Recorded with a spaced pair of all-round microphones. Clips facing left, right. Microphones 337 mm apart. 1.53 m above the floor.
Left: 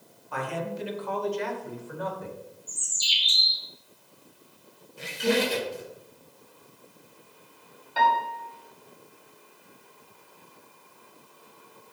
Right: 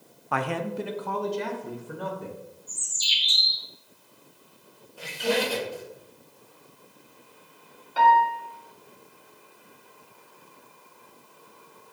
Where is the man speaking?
75° right (ahead or behind), 0.7 m; by 2.4 s 35° right (ahead or behind), 2 m.